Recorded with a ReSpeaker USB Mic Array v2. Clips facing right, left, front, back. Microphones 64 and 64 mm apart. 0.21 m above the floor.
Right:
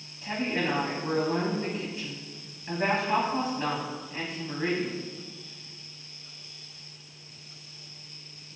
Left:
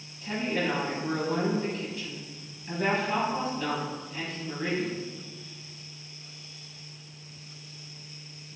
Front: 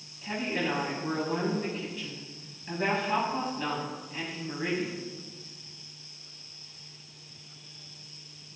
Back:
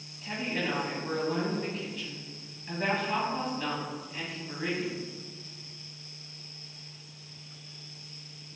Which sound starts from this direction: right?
A woman speaking, at 0.2 s.